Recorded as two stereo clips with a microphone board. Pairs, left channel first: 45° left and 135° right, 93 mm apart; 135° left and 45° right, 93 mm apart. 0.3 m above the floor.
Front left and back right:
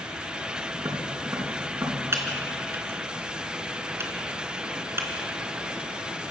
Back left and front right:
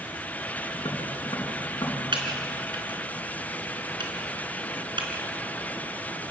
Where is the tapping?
175° left, 3.5 m.